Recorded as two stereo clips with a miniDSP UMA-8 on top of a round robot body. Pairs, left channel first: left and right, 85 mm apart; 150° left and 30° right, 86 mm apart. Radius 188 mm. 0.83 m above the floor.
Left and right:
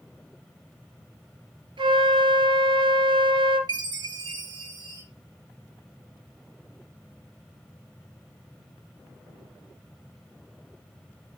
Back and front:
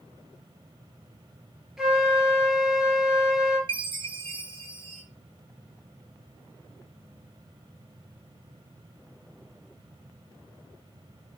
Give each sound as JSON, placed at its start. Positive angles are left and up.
{"t": 1.8, "sound": "a flute", "azimuth_deg": -115, "distance_m": 3.0}
{"t": 3.7, "sound": "a chime", "azimuth_deg": -50, "distance_m": 3.0}